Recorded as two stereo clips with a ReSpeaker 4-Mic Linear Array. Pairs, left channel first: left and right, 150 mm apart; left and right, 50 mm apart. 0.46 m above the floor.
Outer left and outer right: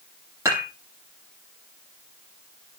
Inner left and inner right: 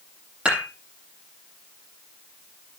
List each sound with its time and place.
0.5 s dishes clattering: 20° right (ahead or behind), 8.5 m